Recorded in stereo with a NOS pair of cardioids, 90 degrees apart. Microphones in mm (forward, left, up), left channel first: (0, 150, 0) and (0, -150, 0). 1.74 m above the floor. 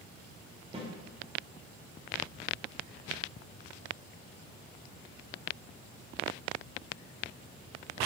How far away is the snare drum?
About 0.6 m.